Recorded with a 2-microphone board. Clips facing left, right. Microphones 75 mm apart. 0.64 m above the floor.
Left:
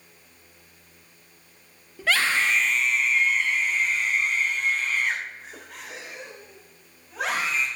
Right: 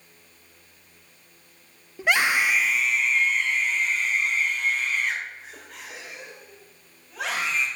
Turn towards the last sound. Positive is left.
turn(degrees=15)  # may be behind; listen again after turning